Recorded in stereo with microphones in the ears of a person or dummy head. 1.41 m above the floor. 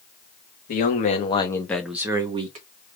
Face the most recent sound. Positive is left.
turn(degrees=-40)  # may be behind; listen again after turning